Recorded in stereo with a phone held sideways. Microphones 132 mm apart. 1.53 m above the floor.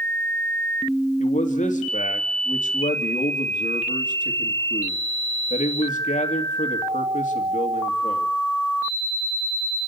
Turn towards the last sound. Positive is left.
turn(degrees=65)  # may be behind; listen again after turning